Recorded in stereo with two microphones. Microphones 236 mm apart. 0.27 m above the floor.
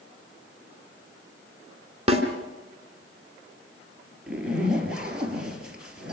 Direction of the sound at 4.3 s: 5° right (ahead or behind).